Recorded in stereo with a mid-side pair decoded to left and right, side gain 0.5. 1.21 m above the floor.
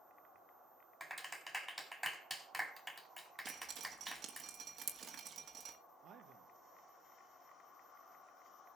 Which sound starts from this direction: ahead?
A clap, at 1.0 s.